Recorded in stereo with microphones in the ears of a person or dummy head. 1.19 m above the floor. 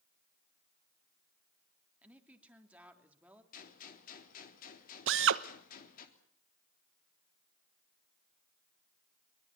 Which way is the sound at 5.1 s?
60° right (ahead or behind).